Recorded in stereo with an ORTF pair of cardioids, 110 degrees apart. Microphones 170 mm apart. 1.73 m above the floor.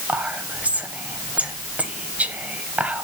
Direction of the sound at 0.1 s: 10° right.